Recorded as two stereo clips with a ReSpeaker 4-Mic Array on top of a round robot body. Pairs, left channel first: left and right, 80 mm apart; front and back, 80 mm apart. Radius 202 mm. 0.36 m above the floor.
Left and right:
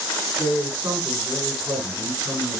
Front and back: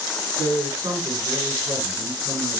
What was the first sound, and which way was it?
A man speaking, 145° right.